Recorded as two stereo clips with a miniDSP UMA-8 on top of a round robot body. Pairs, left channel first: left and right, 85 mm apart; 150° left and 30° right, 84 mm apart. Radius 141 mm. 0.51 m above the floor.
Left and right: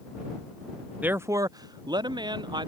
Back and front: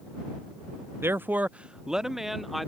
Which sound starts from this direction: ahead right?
A man speaking, at 1.0 s.